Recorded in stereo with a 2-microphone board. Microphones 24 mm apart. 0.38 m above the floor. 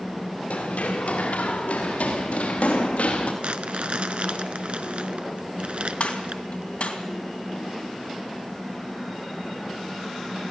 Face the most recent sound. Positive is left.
turn(degrees=70)  # may be behind; listen again after turning